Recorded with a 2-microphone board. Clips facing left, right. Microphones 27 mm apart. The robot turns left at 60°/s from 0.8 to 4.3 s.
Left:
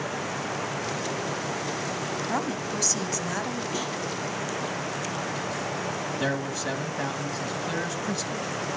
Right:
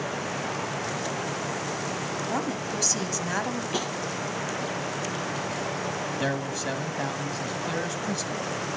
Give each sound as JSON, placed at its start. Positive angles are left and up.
{"t": 2.3, "sound": "a woman speaking", "azimuth_deg": 25, "distance_m": 1.2}
{"t": 3.7, "sound": "tapping", "side_deg": -45, "distance_m": 7.0}
{"t": 6.2, "sound": "a man speaking", "side_deg": -5, "distance_m": 1.3}